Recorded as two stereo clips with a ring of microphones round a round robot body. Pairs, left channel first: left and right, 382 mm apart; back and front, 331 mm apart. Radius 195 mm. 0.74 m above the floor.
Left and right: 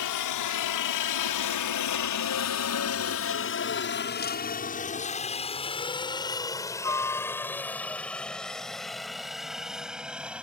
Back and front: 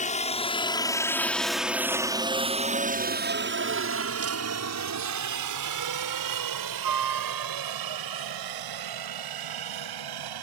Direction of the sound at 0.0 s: 115° left.